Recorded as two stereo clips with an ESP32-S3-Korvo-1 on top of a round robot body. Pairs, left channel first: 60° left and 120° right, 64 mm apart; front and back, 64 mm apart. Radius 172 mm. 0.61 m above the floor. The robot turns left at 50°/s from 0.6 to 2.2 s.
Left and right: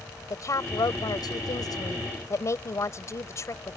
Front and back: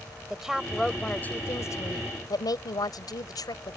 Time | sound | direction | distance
0.3 | a woman speaking | 95° left | ?